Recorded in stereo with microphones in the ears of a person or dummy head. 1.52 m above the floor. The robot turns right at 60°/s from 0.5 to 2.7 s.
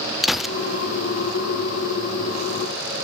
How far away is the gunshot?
About 0.6 m.